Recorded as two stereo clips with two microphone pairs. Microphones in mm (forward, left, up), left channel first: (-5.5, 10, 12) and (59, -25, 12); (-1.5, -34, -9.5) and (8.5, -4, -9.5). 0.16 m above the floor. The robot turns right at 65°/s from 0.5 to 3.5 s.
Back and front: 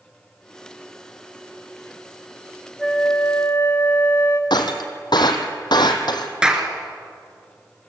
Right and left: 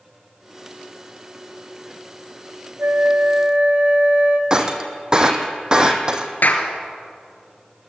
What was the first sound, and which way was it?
A flute, 65° left.